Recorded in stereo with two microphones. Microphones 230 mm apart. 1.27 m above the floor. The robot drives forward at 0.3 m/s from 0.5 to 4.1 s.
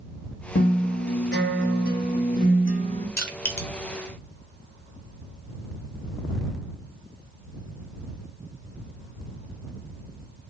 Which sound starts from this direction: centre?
Crushing, at 3.2 s.